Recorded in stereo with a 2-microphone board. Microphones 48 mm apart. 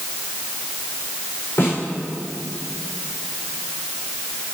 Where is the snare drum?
60° left (ahead or behind), 6.5 m.